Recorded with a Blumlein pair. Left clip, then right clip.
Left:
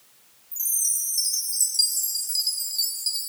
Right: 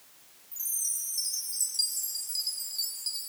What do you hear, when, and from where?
0.5 s a chime: 20° left